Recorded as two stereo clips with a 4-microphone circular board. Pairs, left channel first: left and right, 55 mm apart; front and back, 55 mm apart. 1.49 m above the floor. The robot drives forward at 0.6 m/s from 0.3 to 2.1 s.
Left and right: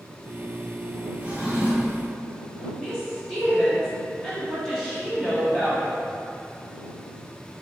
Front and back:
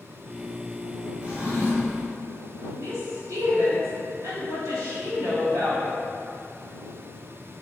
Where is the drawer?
135° right, 1.4 m; by 2.0 s 150° right, 1.7 m.